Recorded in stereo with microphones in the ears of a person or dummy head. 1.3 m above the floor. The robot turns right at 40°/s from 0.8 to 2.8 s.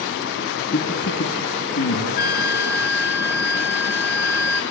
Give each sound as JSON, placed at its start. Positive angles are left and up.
{"t": 0.7, "sound": "a man speaking", "side_deg": 65, "distance_m": 3.0}
{"t": 2.2, "sound": "a flute", "side_deg": 60, "distance_m": 3.5}